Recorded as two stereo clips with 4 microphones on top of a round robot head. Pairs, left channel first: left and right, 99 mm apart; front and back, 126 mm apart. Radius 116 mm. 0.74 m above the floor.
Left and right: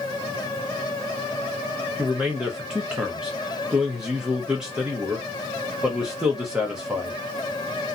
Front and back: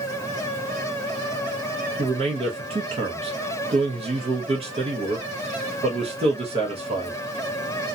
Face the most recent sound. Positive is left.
turn(degrees=-170)